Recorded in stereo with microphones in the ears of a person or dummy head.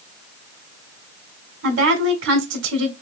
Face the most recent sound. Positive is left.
turn(degrees=-70)  # may be behind; listen again after turning